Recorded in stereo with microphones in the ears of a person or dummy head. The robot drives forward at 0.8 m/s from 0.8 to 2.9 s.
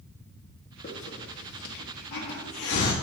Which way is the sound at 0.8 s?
50° left (ahead or behind).